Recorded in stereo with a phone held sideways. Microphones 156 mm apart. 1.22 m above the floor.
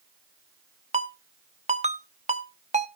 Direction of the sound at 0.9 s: 45° right (ahead or behind).